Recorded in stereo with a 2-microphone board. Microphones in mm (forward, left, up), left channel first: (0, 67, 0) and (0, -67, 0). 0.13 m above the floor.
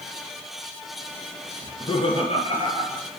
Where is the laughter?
35° left (ahead or behind), 2.0 m; by 3.1 s 45° left (ahead or behind), 3.5 m.